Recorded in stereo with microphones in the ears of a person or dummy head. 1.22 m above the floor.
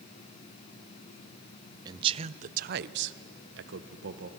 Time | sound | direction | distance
1.9 | a man speaking | 20° right (ahead or behind) | 0.8 m